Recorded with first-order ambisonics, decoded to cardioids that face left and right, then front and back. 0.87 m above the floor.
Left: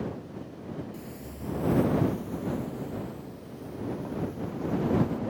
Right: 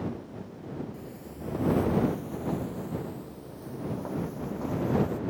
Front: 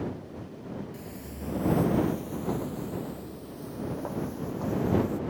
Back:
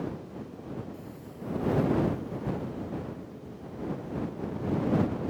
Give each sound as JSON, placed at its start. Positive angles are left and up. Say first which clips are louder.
{"t": 0.9, "sound": "footsteps", "louder": "even, front 2 dB", "azimuth_deg": 35}